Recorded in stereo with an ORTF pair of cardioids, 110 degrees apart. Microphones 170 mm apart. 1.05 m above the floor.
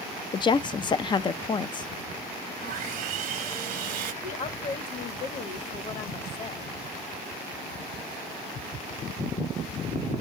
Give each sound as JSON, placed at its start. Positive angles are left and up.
{"t": 0.3, "sound": "a woman speaking", "azimuth_deg": 25, "distance_m": 0.6}
{"t": 2.6, "sound": "sawing", "azimuth_deg": -55, "distance_m": 1.1}
{"t": 4.2, "sound": "a woman speaking", "azimuth_deg": 45, "distance_m": 1.4}